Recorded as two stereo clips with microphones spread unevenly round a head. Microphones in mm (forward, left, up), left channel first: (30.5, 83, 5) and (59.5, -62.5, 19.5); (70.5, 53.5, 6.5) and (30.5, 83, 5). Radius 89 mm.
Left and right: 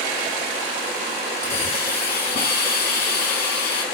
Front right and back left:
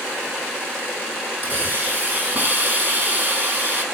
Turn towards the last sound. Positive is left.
turn(degrees=95)